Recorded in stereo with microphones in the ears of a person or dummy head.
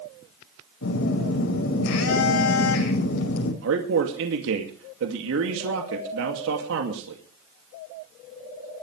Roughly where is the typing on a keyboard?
No typing on a keyboard in this recording.